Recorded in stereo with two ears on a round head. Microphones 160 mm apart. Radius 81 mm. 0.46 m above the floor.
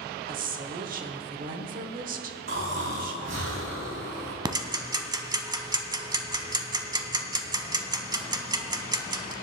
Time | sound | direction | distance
0.3 | a woman speaking | 50° right (ahead or behind) | 1.1 m
2.5 | snoring | 75° right (ahead or behind) | 4.5 m
4.5 | ticking | 25° right (ahead or behind) | 1.0 m